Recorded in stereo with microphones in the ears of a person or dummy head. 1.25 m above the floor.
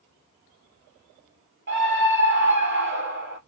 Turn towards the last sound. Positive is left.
turn(degrees=-55)  # may be behind; listen again after turning